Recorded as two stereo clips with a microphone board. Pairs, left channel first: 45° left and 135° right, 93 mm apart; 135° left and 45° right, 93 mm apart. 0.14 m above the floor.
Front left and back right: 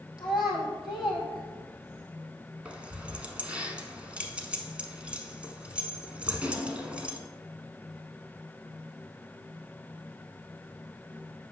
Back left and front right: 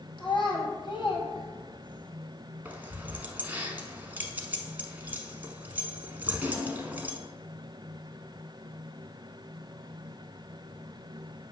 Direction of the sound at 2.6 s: 80° right.